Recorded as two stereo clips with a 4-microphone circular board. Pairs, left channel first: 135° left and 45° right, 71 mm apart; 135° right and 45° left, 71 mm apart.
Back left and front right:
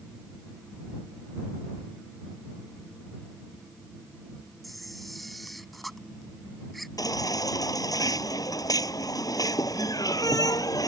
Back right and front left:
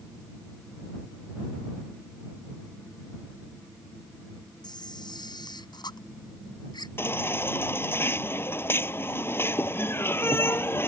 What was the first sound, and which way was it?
A camera shutter, 135° right.